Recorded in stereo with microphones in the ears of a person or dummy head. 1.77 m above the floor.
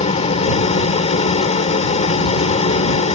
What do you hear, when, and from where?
0.0 s an engine running: 35° left (ahead or behind)